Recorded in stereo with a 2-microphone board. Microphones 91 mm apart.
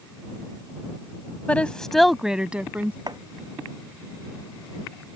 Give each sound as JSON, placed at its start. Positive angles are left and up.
{"t": 1.5, "sound": "a woman speaking", "side_deg": 15}
{"t": 3.1, "sound": "chopping", "side_deg": -50}